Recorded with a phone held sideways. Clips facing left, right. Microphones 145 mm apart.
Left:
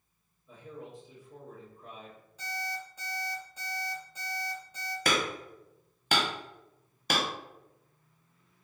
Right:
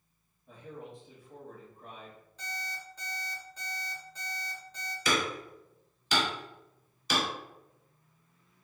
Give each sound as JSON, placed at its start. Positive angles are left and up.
{"t": 0.5, "sound": "a man speaking", "side_deg": -60, "distance_m": 1.6}
{"t": 2.4, "sound": "an alarm clock", "side_deg": 10, "distance_m": 1.6}
{"t": 5.0, "sound": "hammering", "side_deg": 60, "distance_m": 0.8}